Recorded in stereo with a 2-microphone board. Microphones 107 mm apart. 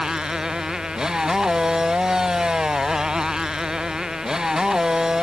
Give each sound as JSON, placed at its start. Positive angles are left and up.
{"t": 0.0, "sound": "a motorcycle", "side_deg": -5}